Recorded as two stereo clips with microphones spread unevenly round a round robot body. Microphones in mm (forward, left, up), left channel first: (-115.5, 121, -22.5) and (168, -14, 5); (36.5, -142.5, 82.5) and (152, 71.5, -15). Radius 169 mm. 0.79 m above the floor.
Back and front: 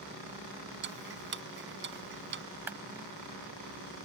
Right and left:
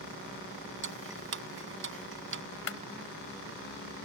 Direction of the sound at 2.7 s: 110° right.